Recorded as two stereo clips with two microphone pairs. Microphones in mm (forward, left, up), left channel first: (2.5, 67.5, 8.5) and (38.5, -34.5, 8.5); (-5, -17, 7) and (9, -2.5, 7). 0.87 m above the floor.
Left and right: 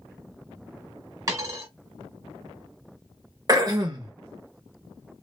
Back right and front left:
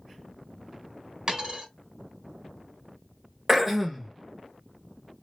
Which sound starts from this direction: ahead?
A dropped coin, at 1.3 s.